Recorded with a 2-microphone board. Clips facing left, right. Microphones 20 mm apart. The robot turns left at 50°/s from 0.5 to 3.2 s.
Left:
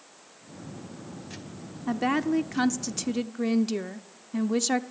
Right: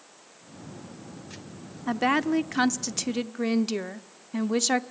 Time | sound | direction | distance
1.9 | a woman speaking | 15° right (ahead or behind) | 0.7 m